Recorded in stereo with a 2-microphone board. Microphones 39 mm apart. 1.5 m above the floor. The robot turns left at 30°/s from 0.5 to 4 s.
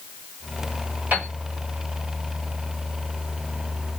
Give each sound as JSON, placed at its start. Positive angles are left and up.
{"t": 1.1, "sound": "a piano", "side_deg": -50, "distance_m": 1.7}